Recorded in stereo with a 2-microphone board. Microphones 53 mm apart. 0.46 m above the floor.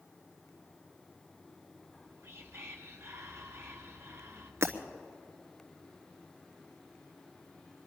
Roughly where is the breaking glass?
Right.